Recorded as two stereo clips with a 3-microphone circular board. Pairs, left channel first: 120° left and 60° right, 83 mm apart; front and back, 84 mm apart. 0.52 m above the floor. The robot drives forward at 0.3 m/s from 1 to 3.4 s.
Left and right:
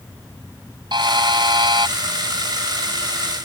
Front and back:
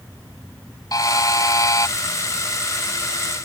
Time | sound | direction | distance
0.9 | a buzzer | 40° right | ?